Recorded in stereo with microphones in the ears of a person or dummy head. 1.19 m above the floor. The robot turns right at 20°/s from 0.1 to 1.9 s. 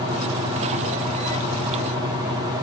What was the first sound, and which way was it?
Only background noise.